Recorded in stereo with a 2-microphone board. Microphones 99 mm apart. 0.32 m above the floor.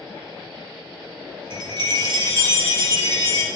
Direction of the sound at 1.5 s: 50° right (ahead or behind).